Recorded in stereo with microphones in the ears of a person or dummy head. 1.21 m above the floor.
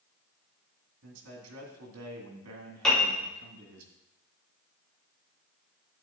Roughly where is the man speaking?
Right.